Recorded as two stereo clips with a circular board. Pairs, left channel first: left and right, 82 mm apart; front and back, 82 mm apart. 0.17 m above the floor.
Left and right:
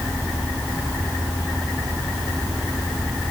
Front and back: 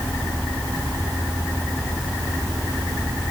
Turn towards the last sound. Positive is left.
No sound to turn to.